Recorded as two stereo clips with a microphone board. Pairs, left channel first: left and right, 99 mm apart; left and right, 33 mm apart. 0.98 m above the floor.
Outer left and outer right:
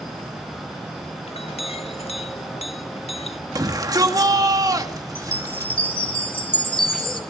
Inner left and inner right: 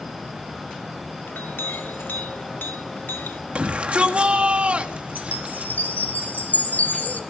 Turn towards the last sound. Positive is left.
turn(degrees=55)  # may be behind; listen again after turning